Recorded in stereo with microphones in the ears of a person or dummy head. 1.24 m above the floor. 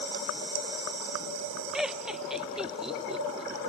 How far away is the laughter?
About 0.6 m.